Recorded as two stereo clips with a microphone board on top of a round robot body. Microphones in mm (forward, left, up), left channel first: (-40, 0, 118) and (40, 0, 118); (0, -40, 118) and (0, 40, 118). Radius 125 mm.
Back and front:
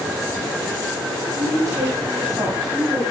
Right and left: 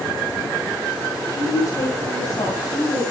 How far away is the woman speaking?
About 6 m.